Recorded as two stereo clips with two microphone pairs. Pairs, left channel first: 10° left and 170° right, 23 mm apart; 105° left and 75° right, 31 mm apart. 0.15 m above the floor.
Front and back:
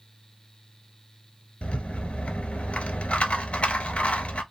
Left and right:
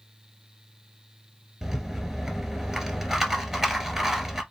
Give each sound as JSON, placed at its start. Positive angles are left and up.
{"t": 1.6, "sound": "a rattle", "azimuth_deg": 5, "distance_m": 0.8}